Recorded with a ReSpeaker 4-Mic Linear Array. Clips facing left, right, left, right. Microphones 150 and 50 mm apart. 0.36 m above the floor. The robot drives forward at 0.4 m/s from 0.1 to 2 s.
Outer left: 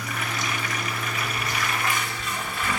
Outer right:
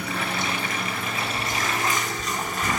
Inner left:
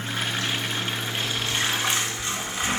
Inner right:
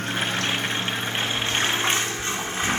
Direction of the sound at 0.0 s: 65° right (ahead or behind).